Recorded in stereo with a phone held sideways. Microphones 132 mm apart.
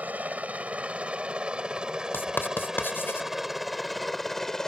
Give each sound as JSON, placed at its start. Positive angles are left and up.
{"t": 0.0, "sound": "a helicopter", "side_deg": -10}
{"t": 2.1, "sound": "writing", "side_deg": 15}